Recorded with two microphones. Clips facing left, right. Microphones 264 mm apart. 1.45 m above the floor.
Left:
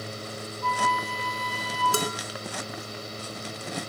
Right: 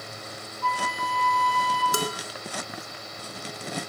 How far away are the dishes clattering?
About 2.0 m.